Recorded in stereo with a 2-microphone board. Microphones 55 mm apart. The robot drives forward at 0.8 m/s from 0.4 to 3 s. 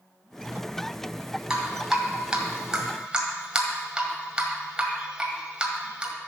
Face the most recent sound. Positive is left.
turn(degrees=-15)  # may be behind; listen again after turning